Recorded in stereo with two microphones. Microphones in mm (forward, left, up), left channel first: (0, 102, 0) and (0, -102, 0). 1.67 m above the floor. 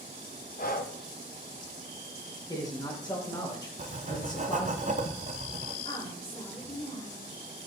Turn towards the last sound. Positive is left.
turn(degrees=25)  # may be behind; listen again after turning